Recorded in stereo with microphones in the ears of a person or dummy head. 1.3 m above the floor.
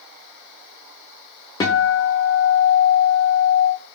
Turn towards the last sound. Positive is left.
turn(degrees=20)  # may be behind; listen again after turning